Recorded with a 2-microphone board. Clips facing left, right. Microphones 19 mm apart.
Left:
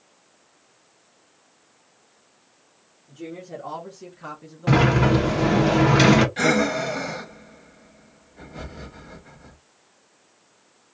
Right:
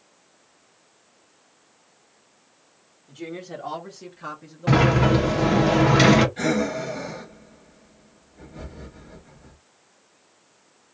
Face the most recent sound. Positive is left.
turn(degrees=40)  # may be behind; listen again after turning